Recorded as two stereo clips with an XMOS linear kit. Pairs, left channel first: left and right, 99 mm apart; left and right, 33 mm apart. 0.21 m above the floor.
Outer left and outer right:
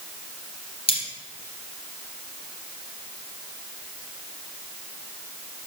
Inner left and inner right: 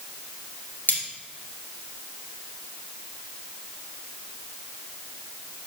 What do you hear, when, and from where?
0.9 s cutlery clinking: 70° left (ahead or behind), 2 m